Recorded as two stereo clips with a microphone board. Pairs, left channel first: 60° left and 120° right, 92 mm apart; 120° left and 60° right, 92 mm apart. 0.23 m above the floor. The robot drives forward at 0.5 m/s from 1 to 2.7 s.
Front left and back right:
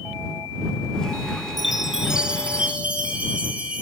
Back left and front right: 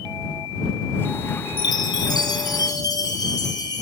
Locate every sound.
1.6 s a chime: 150° left, 0.6 m; by 3.8 s 165° left, 1.2 m